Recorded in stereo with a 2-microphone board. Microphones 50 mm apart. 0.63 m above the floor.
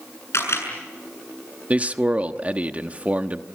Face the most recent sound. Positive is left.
turn(degrees=-30)  # may be behind; listen again after turning